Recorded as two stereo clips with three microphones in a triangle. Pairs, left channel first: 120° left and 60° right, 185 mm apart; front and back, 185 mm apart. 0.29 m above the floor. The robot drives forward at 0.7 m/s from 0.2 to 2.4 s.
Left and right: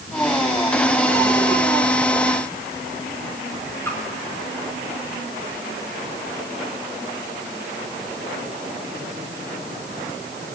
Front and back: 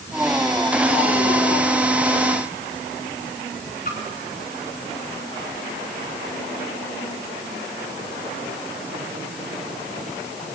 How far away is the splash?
About 5 m.